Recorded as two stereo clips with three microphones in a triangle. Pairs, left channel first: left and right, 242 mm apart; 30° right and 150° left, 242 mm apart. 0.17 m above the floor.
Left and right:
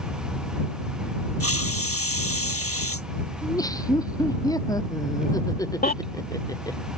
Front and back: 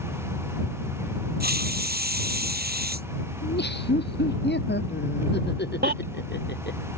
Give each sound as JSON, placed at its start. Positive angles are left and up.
{"t": 1.4, "sound": "a hiss", "azimuth_deg": 105}
{"t": 3.4, "sound": "laughter", "azimuth_deg": 15}
{"t": 5.8, "sound": "a baby crying", "azimuth_deg": 125}